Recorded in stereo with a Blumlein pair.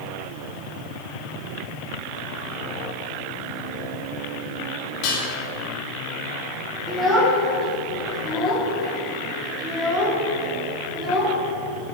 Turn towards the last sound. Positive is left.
turn(degrees=-15)